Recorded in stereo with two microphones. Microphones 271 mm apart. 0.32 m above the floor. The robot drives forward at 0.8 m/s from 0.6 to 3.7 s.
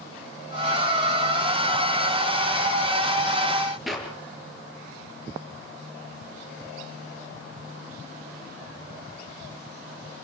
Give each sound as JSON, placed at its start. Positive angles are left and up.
{"t": 3.9, "sound": "a clap", "side_deg": 0, "distance_m": 5.5}